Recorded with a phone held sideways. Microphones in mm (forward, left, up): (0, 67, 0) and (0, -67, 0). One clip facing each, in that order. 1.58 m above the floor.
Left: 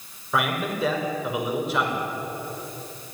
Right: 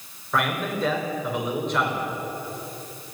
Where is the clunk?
No clunk in this recording.